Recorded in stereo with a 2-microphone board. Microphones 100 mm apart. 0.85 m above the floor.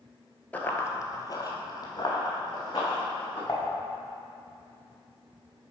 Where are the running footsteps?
15° left (ahead or behind), 0.8 m; by 3.4 s 40° left (ahead or behind), 3.5 m.